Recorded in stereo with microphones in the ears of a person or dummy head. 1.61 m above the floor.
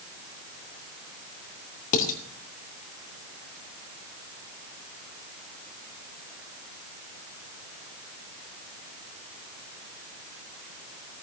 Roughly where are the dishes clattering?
Left.